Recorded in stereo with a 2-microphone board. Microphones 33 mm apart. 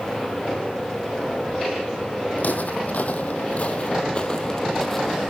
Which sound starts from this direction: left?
Footsteps, at 2.4 s.